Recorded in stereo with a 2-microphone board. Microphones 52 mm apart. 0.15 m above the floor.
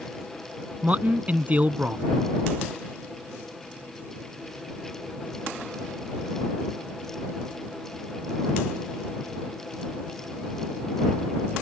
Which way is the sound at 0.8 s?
30° right (ahead or behind).